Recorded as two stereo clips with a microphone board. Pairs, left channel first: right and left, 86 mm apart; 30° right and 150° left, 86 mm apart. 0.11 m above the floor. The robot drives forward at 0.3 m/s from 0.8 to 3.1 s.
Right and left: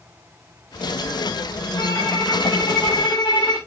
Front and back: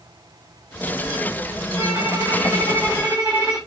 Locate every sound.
1.8 s a violin: 150° right, 5 m